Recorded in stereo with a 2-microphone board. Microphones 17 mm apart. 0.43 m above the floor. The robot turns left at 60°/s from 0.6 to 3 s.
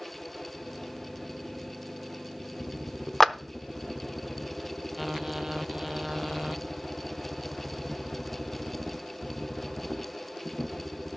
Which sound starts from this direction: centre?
A clap, at 3.2 s.